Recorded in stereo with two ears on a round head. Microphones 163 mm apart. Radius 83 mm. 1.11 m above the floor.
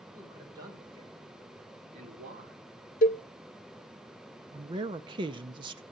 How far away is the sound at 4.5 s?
About 0.6 m.